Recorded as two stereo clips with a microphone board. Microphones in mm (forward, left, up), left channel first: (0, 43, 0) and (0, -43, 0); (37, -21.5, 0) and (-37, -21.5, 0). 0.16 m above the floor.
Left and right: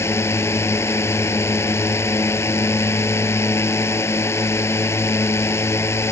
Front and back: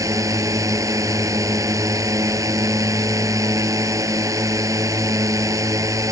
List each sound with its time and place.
0.0 s a drone: 145° left